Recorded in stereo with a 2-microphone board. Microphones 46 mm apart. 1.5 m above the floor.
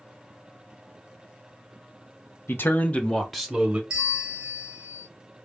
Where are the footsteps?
I don't hear footsteps.